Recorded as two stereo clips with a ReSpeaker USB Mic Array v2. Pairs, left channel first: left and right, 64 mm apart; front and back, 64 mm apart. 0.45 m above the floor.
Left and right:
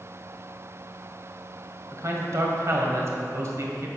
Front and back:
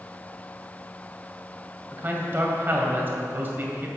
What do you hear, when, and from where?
1.9 s a man speaking: 125° right, 2.5 m